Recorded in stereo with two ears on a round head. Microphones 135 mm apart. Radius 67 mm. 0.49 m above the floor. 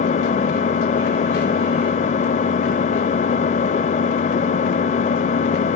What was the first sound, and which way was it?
An engine running, 50° left (ahead or behind).